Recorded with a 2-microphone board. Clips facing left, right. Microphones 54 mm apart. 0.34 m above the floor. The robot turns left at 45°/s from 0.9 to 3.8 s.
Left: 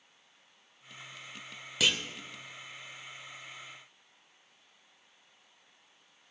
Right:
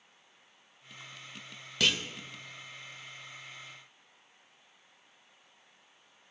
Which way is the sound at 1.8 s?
5° left (ahead or behind).